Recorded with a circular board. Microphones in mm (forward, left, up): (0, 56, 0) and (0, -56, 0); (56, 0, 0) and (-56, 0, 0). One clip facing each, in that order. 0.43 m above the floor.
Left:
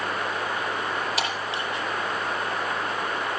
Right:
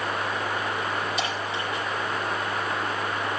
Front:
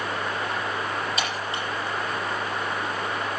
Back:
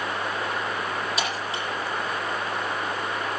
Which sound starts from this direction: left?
Breaking glass, at 1.2 s.